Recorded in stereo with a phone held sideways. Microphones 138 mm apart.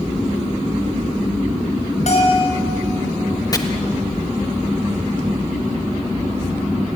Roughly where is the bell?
Left.